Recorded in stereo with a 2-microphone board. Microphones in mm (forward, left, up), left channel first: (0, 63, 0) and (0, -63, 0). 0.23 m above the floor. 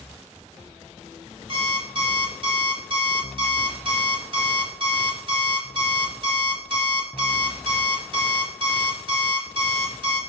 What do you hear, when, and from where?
1.5 s an alarm clock: 45° right (ahead or behind), 0.6 m